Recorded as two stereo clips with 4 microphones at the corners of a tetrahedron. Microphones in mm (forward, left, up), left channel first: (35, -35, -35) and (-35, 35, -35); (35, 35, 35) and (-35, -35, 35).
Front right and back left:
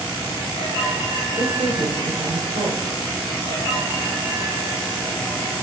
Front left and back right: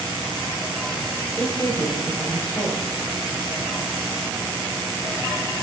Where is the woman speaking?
125° left, 3.5 m.